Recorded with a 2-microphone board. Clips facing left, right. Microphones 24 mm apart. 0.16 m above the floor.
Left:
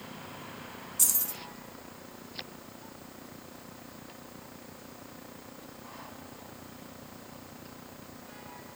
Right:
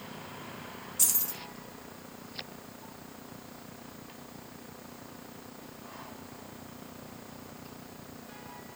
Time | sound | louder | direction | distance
1.0 | keys jangling | even | 10° right (ahead or behind) | 0.9 m